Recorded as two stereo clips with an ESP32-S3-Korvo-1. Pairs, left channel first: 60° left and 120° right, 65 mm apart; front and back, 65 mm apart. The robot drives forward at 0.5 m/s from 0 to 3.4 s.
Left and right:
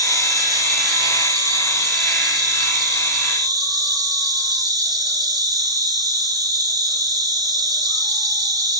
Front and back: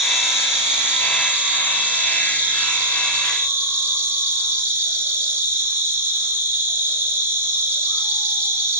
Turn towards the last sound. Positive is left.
turn(degrees=-125)